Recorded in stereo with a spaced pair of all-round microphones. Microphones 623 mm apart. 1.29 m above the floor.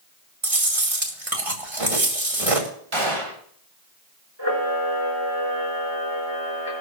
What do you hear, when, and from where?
0.4 s chewing: 60° right (ahead or behind), 2.5 m
2.9 s a gunshot: 50° right (ahead or behind), 1.7 m
4.4 s a camera shutter: 45° right (ahead or behind), 4.5 m